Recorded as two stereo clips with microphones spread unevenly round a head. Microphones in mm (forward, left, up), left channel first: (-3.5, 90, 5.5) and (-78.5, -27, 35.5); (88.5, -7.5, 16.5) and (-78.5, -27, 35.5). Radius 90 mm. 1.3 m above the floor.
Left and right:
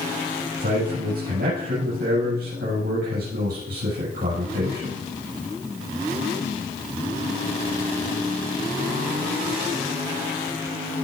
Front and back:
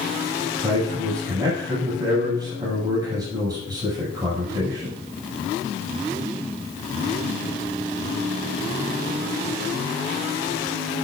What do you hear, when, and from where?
0.6 s a man speaking: 105° right, 6.5 m